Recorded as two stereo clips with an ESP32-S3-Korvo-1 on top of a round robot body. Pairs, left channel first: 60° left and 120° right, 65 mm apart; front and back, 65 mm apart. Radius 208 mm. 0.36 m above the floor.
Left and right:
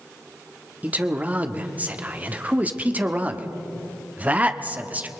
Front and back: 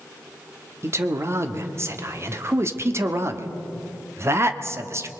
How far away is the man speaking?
About 1.6 m.